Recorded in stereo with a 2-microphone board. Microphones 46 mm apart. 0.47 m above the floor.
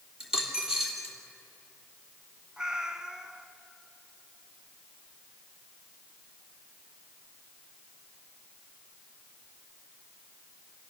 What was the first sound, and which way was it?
A dropped coin, 15° right (ahead or behind).